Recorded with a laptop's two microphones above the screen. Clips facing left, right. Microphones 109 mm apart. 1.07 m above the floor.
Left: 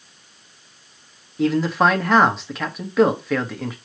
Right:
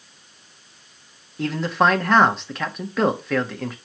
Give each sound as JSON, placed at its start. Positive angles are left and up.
{"t": 1.4, "sound": "a man speaking", "side_deg": 0, "distance_m": 1.5}